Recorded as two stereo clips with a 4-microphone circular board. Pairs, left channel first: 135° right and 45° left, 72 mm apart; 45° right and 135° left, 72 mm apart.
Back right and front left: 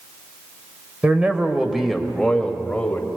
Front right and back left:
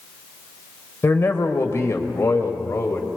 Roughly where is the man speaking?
Ahead.